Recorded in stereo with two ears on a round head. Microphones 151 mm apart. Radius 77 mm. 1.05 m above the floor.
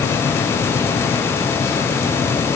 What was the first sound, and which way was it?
Only background noise.